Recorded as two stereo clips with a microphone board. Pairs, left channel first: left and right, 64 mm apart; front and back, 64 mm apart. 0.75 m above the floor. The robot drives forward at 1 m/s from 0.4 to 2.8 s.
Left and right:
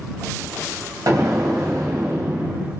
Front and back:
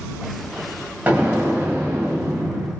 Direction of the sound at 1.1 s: 115° right.